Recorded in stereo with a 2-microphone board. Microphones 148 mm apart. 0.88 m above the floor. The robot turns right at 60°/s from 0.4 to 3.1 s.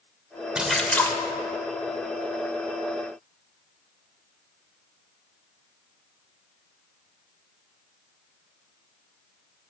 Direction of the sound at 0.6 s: 10° right.